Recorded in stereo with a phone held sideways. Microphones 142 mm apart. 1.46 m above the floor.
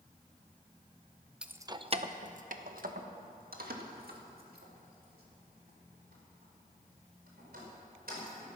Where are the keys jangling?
5° right (ahead or behind), 0.6 m; by 8.5 s 85° right, 5.5 m.